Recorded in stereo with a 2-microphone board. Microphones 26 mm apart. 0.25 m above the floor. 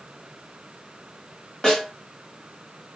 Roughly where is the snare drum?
Left.